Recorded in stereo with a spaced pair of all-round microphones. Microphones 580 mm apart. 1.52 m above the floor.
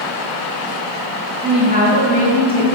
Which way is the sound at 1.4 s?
20° right (ahead or behind).